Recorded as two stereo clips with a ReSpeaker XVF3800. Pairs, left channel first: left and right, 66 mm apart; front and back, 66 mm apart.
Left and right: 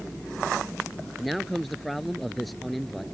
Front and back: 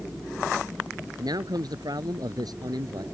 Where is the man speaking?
Straight behind.